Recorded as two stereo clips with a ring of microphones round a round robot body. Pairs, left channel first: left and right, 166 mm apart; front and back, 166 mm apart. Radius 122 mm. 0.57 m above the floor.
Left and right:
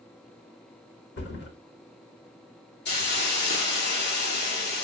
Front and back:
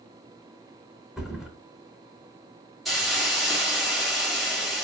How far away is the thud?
About 3 m.